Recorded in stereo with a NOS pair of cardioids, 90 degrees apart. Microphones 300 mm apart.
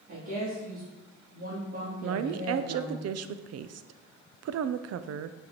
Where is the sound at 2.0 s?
55° right, 0.6 m.